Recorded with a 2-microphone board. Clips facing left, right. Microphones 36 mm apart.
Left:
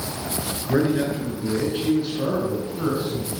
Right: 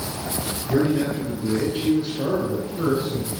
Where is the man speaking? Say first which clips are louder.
Even; 30° left (ahead or behind), 5.5 m; by 3.3 s 10° right (ahead or behind), 5 m.